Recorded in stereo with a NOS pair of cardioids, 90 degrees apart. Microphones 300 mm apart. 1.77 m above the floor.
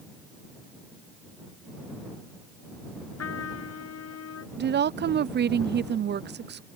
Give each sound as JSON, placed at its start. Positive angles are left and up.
{"t": 3.2, "sound": "a trumpet", "azimuth_deg": 55}
{"t": 4.6, "sound": "a woman speaking", "azimuth_deg": -35}